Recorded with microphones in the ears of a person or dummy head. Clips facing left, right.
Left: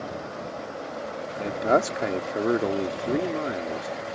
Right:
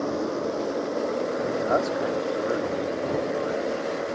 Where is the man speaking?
45° left (ahead or behind).